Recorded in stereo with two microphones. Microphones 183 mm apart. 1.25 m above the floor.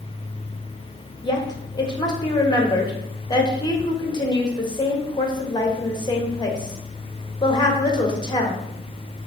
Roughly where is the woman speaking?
Left.